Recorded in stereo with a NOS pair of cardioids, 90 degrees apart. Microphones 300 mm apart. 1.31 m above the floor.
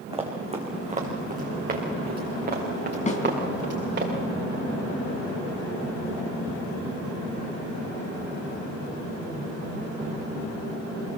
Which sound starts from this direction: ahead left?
A snare drum, at 3.1 s.